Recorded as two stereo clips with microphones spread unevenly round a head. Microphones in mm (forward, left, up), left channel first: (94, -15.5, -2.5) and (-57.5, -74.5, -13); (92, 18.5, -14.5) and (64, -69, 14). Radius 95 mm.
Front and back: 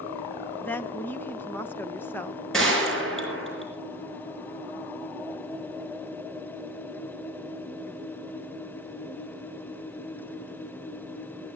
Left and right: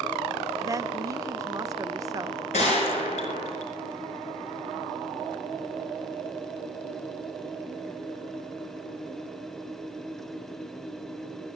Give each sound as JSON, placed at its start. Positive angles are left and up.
{"t": 0.6, "sound": "a woman speaking", "azimuth_deg": -55, "distance_m": 0.9}
{"t": 2.5, "sound": "a gunshot", "azimuth_deg": 110, "distance_m": 4.5}